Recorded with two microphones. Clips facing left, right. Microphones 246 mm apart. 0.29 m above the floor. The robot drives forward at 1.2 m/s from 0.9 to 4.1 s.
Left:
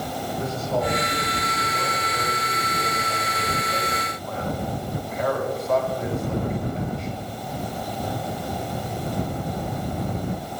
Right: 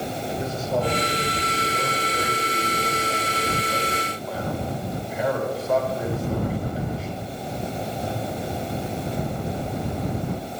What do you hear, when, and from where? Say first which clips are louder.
0.4 s a man speaking: even; centre (ahead or behind), 6.5 m; by 7.1 s 5° right (ahead or behind), 3 m